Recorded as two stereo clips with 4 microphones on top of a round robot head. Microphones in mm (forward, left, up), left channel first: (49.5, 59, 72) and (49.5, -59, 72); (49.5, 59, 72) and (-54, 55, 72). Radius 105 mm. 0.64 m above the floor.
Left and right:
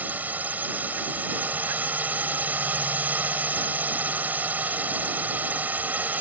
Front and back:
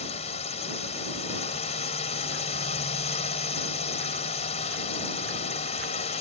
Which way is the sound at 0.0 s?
15° right.